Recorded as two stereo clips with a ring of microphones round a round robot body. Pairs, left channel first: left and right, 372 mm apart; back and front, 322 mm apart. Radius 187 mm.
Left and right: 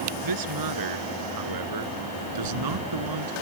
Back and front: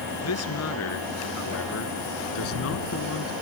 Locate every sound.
0.2 s a man speaking: 125° right; by 3.3 s 120° right